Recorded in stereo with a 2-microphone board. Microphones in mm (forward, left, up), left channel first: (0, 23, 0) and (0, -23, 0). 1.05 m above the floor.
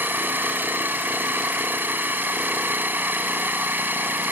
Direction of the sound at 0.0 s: 40° right (ahead or behind).